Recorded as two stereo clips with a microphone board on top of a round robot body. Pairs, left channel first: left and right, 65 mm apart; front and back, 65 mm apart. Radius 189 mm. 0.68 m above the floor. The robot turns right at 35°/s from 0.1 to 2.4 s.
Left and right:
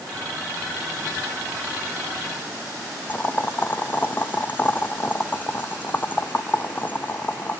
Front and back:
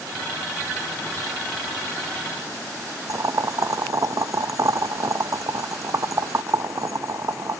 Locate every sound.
3.1 s boiling: 150° left, 0.7 m